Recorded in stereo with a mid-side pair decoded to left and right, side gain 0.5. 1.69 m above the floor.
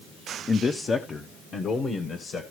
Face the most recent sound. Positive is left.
turn(degrees=55)